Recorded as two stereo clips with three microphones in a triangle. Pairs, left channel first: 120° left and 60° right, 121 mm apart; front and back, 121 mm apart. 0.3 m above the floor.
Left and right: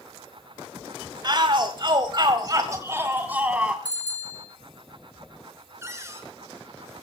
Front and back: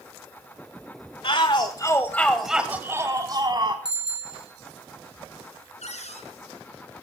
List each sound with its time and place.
1.2 s a shout: 20° right, 1.4 m; by 3.8 s 140° right, 1.9 m
3.9 s a bicycle bell: 45° left, 5 m
5.8 s a cupboard door: 5° left, 4.5 m